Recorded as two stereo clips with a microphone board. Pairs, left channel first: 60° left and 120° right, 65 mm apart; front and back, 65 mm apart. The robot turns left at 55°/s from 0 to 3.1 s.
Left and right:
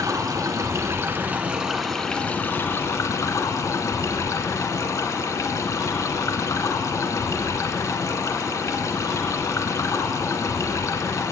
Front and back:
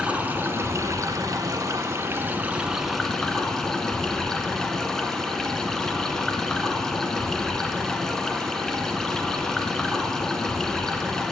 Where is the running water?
110° right, 0.8 m; by 11.3 s 80° left, 0.8 m.